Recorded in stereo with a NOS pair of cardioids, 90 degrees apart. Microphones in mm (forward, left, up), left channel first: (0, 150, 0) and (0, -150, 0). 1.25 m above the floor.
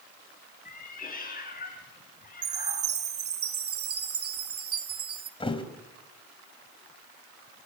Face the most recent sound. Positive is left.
turn(degrees=20)